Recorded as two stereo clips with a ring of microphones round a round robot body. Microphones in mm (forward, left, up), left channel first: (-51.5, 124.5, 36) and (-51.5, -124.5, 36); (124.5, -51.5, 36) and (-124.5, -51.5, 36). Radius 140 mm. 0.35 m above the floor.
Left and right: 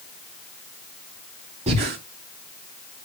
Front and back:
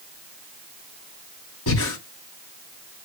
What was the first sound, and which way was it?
Breathing, 25° right.